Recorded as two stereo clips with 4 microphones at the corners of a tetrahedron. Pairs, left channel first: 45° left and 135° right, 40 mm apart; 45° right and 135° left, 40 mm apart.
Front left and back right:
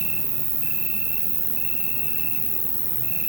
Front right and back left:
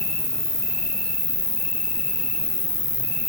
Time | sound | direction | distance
0.0 | an insect | 85° right | 1.7 m